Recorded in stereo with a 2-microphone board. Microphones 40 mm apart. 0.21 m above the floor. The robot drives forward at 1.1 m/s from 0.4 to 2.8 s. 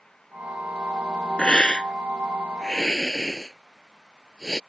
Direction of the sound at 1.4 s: 25° left (ahead or behind).